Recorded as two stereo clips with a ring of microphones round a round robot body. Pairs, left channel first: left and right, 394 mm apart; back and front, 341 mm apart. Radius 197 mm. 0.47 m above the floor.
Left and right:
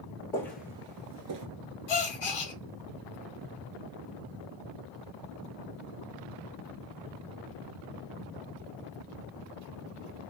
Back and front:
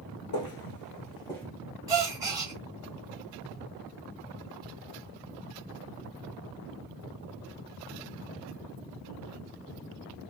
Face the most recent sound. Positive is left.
turn(degrees=80)